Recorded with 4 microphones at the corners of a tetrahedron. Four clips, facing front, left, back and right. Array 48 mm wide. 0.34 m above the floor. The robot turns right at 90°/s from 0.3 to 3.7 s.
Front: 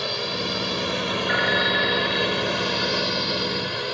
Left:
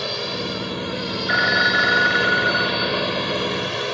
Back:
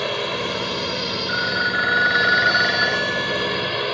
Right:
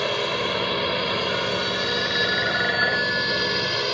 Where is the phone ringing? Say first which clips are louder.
Left 7 dB, front 1 dB; 70° left; by 3.9 s 75° right.